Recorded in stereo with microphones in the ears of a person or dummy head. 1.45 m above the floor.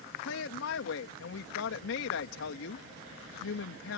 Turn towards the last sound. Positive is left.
turn(degrees=85)